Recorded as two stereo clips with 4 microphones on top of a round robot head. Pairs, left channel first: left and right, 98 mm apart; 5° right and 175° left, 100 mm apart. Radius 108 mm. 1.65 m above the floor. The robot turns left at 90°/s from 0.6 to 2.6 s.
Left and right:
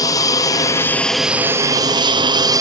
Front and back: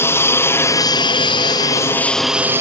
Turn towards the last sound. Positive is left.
turn(degrees=-130)